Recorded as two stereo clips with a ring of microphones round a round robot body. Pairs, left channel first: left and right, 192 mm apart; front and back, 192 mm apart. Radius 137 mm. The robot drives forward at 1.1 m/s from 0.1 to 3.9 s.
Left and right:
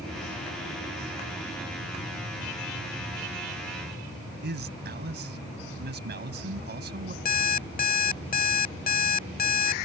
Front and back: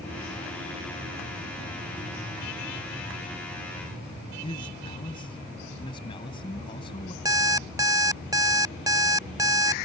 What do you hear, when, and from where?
4.4 s a man speaking: 70° right
7.2 s an alarm clock: 110° left